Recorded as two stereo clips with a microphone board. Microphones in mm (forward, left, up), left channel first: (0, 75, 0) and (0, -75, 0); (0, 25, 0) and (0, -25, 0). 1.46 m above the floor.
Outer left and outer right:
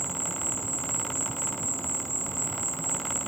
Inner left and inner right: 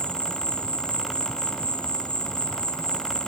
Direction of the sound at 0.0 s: 15° left (ahead or behind).